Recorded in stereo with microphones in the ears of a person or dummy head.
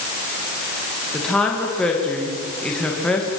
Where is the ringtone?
I don't hear a ringtone.